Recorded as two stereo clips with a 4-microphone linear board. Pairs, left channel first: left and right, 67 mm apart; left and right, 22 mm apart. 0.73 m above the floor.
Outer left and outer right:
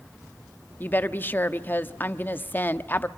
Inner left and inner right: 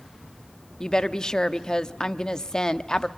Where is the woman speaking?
30° left (ahead or behind), 0.9 m.